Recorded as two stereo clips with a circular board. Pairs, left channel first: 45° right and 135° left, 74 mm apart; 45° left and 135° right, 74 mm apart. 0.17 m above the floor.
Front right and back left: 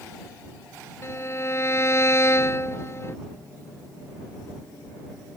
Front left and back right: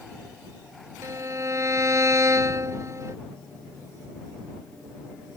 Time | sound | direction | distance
1.0 | a violin | 95° right | ?